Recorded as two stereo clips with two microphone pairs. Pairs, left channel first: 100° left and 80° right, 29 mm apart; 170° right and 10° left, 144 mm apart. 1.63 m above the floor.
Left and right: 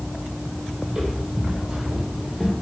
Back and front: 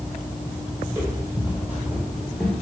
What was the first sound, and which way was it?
Footsteps, 55° right.